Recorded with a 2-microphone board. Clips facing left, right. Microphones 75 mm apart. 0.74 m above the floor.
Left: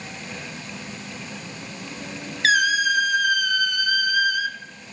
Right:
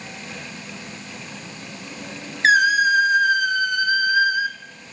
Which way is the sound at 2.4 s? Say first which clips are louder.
Right 4 dB; 30° right (ahead or behind).